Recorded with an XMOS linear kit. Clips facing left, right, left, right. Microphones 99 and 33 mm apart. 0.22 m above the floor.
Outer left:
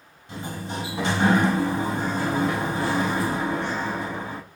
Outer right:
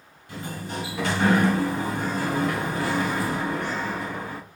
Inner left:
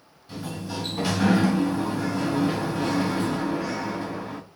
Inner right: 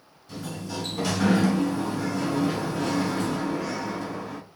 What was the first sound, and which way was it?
A sliding door, 25° left (ahead or behind).